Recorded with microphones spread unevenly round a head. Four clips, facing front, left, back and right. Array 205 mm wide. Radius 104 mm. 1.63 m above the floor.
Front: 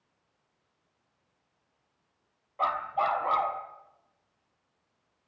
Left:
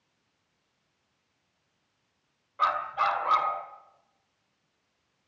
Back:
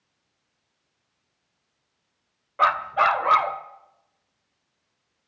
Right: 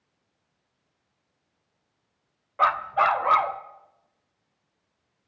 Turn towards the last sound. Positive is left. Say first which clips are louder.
# right 5 dB, back 8 dB
turn(degrees=-155)